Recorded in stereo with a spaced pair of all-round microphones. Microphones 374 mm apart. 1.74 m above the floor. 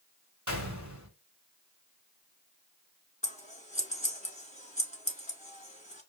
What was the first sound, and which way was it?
A gunshot, 45° right (ahead or behind).